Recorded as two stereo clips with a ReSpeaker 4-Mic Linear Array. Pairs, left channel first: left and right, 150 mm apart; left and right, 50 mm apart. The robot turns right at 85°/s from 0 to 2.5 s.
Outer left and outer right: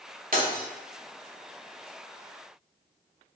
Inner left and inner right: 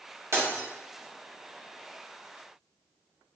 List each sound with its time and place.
0.3 s breaking glass: 65° right (ahead or behind), 1.2 m; by 0.7 s 70° right (ahead or behind), 1.2 m